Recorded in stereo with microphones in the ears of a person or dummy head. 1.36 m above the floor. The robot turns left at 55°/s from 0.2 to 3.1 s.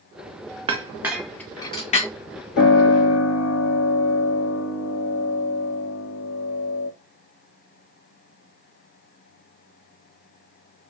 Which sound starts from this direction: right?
A clink, at 0.7 s.